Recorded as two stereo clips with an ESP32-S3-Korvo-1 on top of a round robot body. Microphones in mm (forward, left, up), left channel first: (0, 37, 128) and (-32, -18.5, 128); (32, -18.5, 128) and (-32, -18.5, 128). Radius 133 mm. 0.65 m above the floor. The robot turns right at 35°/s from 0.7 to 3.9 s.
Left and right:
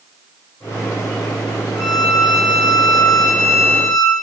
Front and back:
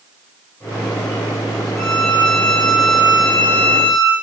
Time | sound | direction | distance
1.8 | a violin | 55° left | 1.4 m